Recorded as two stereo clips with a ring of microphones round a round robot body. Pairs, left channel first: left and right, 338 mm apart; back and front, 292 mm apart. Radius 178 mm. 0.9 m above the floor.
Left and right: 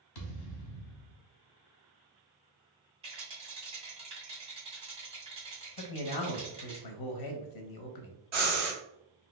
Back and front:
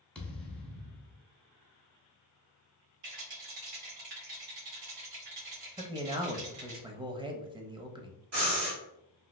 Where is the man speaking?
75° left, 0.8 m.